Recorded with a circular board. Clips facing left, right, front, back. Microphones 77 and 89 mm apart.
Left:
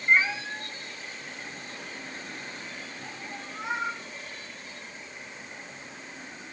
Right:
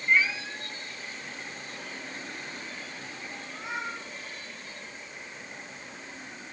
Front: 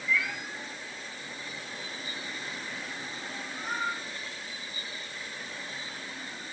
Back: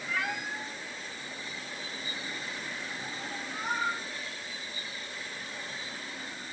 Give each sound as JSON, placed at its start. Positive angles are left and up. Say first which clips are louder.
{"t": 0.1, "sound": "a cat meowing", "louder": "left 2 dB, front 2 dB", "azimuth_deg": 145, "distance_m": 1.6}